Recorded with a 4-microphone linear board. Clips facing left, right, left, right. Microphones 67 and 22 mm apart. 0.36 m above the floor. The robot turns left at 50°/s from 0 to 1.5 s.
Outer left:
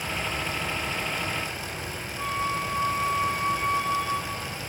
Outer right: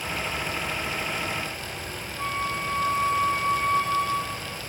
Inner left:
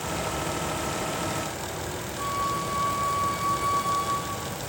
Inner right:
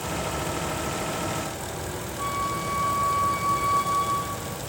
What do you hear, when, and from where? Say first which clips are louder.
2.2 s a flute: outer left 1 dB, even; 5° left (ahead or behind), 6 m